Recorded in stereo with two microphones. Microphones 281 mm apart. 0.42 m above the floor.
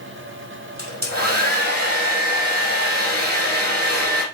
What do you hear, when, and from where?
0.8 s a hair dryer: 35° right (ahead or behind), 3 m